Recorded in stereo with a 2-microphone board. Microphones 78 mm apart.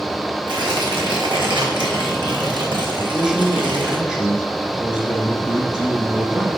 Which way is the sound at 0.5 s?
85° right.